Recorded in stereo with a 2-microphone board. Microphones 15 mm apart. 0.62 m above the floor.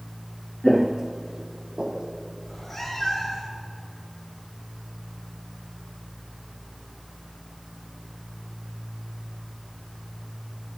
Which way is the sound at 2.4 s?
5° left (ahead or behind).